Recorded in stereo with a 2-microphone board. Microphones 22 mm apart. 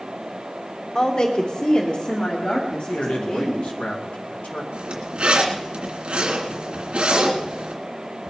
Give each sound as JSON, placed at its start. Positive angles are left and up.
{"t": 0.9, "sound": "a woman speaking", "side_deg": 30, "distance_m": 1.3}
{"t": 2.9, "sound": "a man speaking", "side_deg": 80, "distance_m": 2.0}
{"t": 4.7, "sound": "a zipper", "side_deg": -55, "distance_m": 2.5}